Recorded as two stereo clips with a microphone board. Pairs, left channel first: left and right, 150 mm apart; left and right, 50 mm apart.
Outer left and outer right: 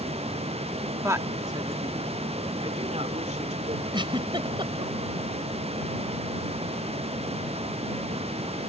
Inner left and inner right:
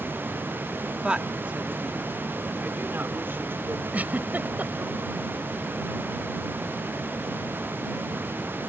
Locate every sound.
1.0 s a woman speaking: 20° right (ahead or behind); by 3.8 s 50° right (ahead or behind)
3.9 s a giggle: 35° right (ahead or behind)